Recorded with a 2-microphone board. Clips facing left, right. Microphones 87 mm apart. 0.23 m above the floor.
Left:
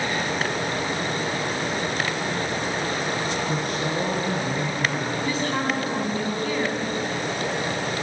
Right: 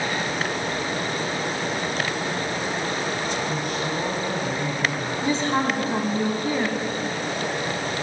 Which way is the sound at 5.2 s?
30° right (ahead or behind).